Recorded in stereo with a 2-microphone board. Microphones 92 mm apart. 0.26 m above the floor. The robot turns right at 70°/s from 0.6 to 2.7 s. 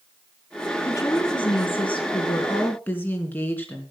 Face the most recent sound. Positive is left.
turn(degrees=160)